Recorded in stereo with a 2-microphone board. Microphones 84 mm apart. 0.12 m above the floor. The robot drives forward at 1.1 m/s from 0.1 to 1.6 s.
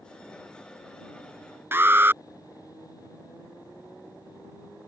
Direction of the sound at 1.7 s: 25° right (ahead or behind).